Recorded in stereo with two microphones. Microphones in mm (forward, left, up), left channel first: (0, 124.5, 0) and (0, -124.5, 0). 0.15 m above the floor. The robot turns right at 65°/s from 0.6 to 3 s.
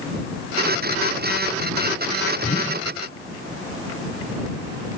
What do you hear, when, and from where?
2.4 s a whoosh: 35° left (ahead or behind); by 2.9 s 20° left (ahead or behind)